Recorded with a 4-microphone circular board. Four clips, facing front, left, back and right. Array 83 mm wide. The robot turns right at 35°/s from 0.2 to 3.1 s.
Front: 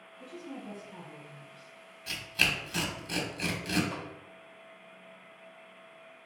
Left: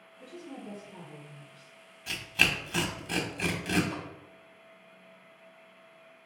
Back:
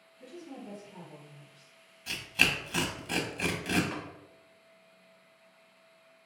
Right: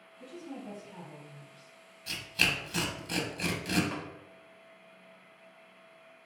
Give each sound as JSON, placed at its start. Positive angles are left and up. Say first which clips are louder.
{"t": 0.2, "sound": "a woman speaking", "louder": "right 1 dB, front 2 dB", "azimuth_deg": -80, "distance_m": 1.3}
{"t": 2.1, "sound": "tearing paper", "louder": "left 3 dB, back 2 dB", "azimuth_deg": 105, "distance_m": 0.5}
{"t": 3.9, "sound": "tapping", "louder": "even, even", "azimuth_deg": -125, "distance_m": 1.4}